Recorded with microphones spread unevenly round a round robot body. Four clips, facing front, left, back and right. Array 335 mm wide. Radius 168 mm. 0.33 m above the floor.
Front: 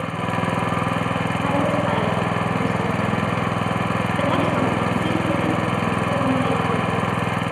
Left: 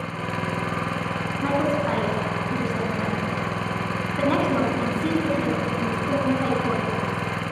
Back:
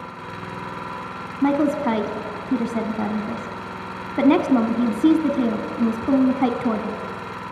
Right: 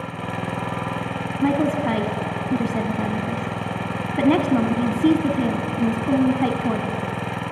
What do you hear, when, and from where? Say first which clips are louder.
0.0 s an engine running: even, front 10 dB; 5° right, 1.2 m
1.4 s a woman speaking: right 3 dB, back 4 dB; 140° right, 3 m